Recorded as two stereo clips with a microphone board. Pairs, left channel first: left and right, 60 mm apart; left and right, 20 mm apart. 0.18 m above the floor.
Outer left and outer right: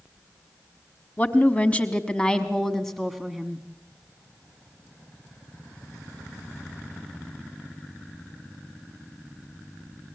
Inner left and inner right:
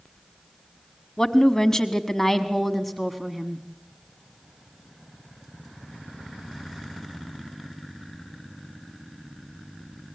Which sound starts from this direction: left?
A woman speaking, at 1.2 s.